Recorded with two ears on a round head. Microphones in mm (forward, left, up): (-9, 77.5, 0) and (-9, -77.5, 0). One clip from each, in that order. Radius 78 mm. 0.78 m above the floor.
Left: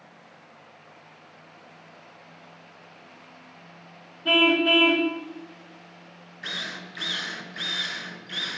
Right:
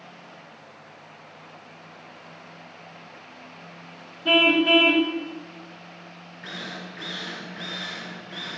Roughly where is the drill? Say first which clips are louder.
Left 4 dB; left.